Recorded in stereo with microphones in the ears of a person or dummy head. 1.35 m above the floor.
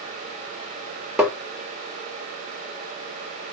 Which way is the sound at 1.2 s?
5° right (ahead or behind).